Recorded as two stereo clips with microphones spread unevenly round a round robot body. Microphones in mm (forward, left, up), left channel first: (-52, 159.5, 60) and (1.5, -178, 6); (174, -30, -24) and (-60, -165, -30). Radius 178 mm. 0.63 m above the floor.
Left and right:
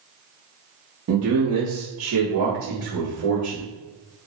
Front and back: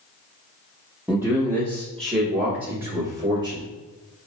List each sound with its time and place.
1.1 s a man speaking: 70° right, 0.9 m; by 3.7 s 95° right, 2 m